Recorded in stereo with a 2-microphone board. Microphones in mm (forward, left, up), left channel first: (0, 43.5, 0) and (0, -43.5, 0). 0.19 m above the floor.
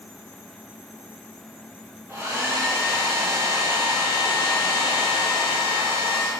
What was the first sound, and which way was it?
A hair dryer, 30° right (ahead or behind).